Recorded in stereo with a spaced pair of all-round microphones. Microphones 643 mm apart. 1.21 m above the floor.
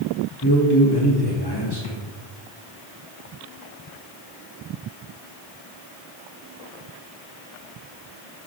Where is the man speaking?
35° left (ahead or behind), 2.5 m.